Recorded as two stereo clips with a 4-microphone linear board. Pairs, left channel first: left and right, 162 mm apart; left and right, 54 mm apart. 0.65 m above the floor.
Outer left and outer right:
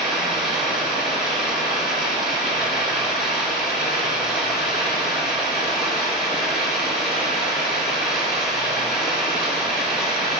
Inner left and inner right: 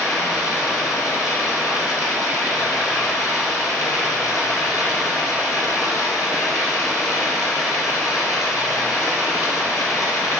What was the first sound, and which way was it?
Running water, 80° left.